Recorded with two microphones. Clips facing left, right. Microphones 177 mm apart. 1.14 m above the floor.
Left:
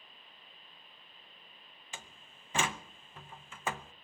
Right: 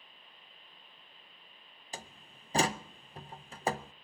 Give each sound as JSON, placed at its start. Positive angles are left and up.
{"t": 1.9, "sound": "a door slam", "side_deg": -40, "distance_m": 0.6}